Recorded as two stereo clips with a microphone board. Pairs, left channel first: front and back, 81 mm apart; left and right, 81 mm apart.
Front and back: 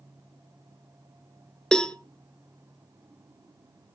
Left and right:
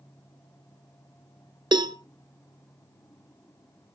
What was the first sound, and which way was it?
A cowbell, 80° right.